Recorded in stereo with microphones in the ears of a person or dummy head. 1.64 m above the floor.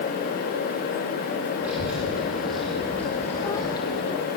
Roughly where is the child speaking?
Centre.